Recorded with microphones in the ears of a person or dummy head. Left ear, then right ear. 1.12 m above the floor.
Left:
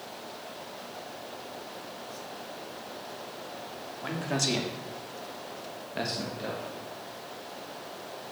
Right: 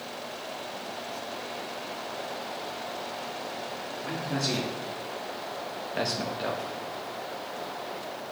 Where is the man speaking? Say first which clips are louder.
Left 2 dB; 55° left (ahead or behind), 2.5 m; by 6.8 s 45° right (ahead or behind), 1.9 m.